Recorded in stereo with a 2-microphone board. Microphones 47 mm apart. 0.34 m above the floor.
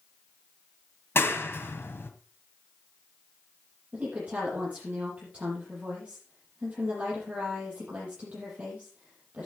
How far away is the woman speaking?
About 8.5 m.